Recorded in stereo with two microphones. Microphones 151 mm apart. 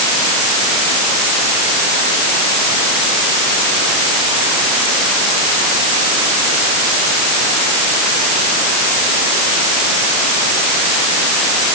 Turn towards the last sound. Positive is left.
No sound to turn to.